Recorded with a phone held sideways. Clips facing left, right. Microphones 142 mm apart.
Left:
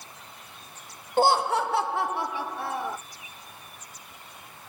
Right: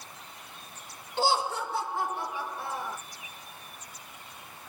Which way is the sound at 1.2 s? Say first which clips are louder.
Left 6 dB; 50° left (ahead or behind).